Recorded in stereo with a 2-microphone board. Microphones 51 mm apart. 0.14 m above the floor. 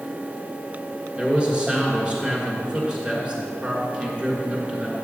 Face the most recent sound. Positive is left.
turn(degrees=-20)  # may be behind; listen again after turning